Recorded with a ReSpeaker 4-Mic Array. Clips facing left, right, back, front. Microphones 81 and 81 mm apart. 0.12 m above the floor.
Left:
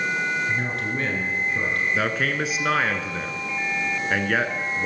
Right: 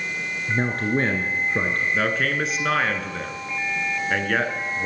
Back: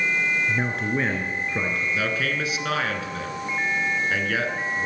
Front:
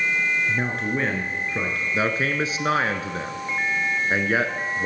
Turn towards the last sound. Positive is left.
turn(degrees=5)